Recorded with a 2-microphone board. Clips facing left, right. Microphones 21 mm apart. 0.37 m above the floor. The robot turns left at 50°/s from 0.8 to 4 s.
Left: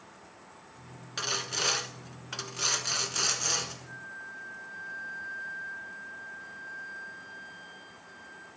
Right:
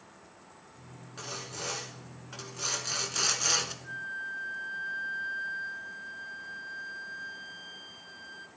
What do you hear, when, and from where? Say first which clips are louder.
1.2 s sawing: left 9 dB; 105° left, 0.7 m; by 3.7 s 25° right, 0.7 m
3.8 s a flute: right 6 dB; 50° right (ahead or behind), 0.8 m; by 8.5 s 55° right (ahead or behind), 0.8 m